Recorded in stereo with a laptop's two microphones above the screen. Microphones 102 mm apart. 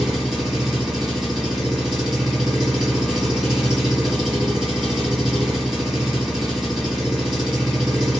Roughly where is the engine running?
Centre.